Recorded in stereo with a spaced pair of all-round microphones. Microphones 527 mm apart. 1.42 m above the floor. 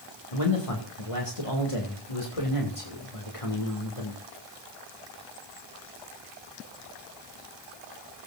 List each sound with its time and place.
0.3 s a man speaking: 75° left (ahead or behind), 2.5 m